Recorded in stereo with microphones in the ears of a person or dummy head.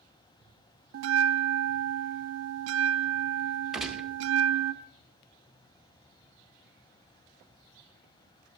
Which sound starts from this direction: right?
A bell, at 0.9 s.